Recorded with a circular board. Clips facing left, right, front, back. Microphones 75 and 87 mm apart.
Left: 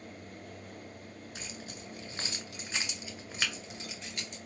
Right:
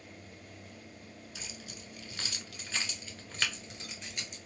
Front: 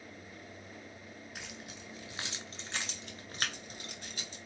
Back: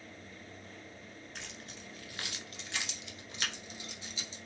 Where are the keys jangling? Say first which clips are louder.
Left 3 dB, front 1 dB; 75° left, 1.3 m; by 4.4 s 5° right, 1.7 m.